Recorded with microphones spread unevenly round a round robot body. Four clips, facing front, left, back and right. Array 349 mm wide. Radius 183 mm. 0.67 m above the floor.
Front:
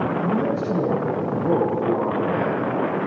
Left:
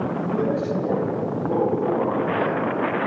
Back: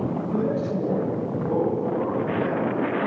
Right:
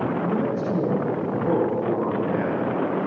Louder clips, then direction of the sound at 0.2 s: Left 1 dB, front 3 dB; 20° right.